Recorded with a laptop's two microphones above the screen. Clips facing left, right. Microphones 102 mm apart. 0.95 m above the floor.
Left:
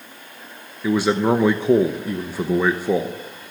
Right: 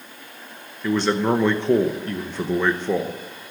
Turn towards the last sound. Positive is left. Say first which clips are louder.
# left 2 dB
turn(degrees=10)  # may be behind; listen again after turning